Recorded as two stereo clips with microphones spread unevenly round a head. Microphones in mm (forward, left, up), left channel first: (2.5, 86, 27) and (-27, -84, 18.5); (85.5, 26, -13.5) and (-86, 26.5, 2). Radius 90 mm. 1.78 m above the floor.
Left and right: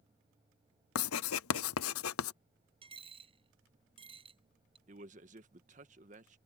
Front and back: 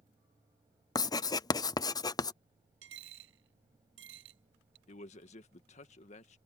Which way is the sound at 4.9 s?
55° right.